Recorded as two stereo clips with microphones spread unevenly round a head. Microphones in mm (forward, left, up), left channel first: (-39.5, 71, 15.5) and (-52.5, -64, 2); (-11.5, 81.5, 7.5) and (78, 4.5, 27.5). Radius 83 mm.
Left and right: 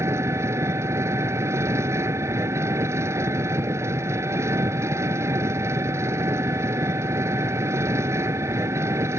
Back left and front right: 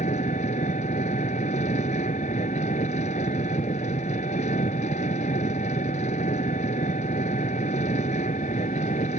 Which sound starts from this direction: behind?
An engine running, at 0.0 s.